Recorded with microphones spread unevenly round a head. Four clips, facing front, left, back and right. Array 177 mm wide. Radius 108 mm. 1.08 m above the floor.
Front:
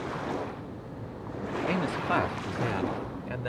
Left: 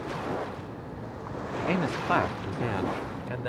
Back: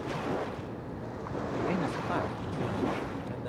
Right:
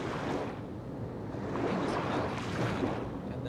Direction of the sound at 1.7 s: 65° left.